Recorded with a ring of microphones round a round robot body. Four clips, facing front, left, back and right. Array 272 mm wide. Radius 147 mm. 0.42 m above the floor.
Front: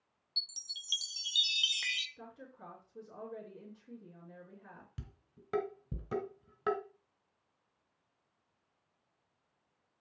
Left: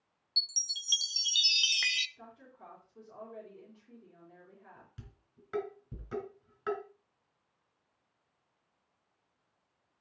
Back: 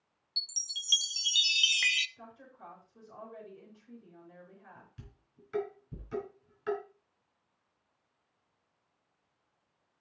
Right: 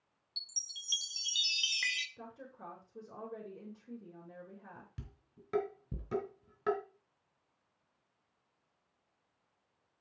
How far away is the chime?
About 0.6 m.